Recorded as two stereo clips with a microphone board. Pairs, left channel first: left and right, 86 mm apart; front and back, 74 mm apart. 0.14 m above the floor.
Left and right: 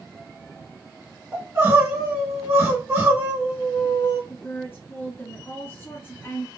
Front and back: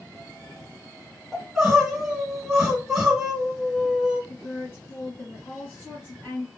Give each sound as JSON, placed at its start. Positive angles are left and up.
{"t": 1.3, "sound": "crying", "azimuth_deg": -100, "distance_m": 1.6}
{"t": 4.3, "sound": "a woman speaking", "azimuth_deg": 45, "distance_m": 1.9}